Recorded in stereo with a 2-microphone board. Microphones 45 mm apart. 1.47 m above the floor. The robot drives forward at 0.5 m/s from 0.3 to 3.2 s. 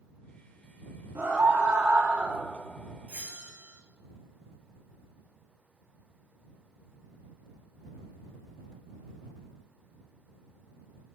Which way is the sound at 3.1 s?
35° right (ahead or behind).